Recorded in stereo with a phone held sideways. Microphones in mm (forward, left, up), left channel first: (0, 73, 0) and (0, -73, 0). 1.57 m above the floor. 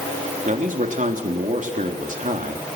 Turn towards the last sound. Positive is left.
turn(degrees=-60)  # may be behind; listen again after turning